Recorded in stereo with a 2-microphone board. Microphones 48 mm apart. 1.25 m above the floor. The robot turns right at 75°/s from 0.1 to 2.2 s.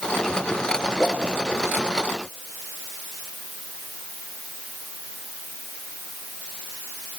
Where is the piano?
I don't hear a piano.